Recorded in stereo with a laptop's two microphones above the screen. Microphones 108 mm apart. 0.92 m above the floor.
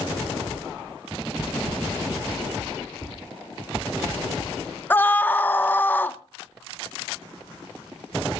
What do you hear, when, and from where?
3.0 s tapping: 20° left (ahead or behind), 3.5 m
4.9 s a scream: 20° left (ahead or behind), 0.6 m